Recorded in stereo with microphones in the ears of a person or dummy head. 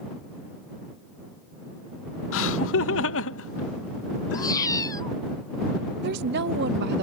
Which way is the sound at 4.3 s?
20° left (ahead or behind).